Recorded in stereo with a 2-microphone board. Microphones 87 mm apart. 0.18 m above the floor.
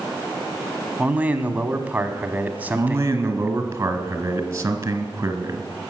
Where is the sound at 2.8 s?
30° right (ahead or behind), 1.8 m.